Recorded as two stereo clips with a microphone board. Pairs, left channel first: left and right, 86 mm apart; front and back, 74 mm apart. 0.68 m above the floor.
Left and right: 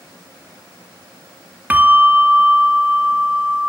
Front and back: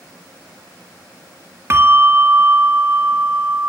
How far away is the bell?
About 1.5 m.